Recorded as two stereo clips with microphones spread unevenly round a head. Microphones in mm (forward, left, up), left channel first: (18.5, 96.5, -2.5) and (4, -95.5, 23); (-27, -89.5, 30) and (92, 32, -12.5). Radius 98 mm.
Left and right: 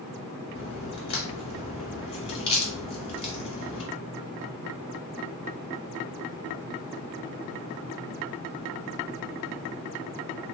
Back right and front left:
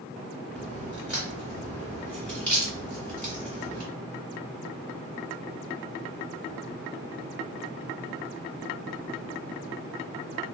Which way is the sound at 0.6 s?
150° left.